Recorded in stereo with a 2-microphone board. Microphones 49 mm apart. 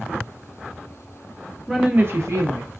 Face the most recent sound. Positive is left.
turn(degrees=-80)